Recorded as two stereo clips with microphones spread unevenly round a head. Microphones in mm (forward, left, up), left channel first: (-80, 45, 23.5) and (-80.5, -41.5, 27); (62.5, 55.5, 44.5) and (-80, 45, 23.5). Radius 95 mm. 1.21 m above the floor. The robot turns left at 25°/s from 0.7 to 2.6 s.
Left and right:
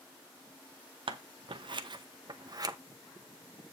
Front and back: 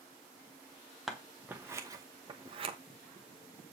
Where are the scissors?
90° right, 1.0 m; by 2.8 s 130° right, 1.0 m.